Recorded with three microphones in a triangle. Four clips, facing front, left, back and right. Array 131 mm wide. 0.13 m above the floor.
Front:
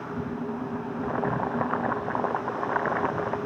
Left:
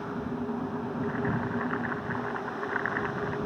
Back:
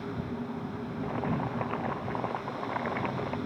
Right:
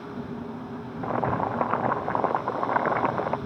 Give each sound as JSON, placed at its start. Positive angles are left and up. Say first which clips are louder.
{"t": 1.0, "sound": "boiling", "louder": "right 8 dB, front 4 dB", "azimuth_deg": -75}